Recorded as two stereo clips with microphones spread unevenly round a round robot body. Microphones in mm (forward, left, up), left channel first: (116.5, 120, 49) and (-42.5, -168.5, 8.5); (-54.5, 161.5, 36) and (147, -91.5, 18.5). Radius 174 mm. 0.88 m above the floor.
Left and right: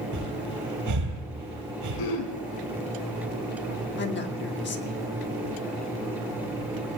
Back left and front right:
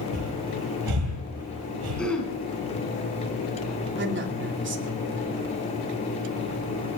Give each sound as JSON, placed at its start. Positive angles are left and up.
{"t": 0.1, "sound": "breathing", "azimuth_deg": -80, "distance_m": 8.5}
{"t": 2.0, "sound": "throat clearing", "azimuth_deg": 40, "distance_m": 5.0}
{"t": 4.0, "sound": "a man speaking", "azimuth_deg": 0, "distance_m": 2.5}